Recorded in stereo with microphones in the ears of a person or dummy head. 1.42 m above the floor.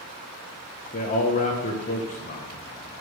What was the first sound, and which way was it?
A man speaking, 35° left (ahead or behind).